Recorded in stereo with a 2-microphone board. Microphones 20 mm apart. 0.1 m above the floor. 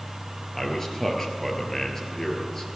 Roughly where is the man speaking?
Left.